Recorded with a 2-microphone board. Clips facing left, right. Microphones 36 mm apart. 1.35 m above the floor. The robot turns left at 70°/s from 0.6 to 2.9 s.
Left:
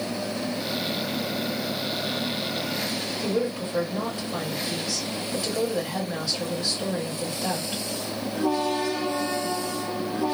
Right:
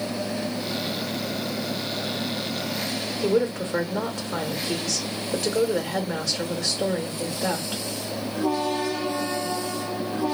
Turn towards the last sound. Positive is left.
turn(degrees=-70)  # may be behind; listen again after turning